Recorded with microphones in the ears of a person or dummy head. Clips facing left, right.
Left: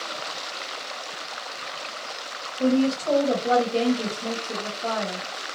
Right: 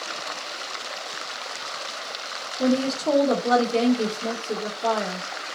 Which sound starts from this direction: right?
A woman speaking, at 2.6 s.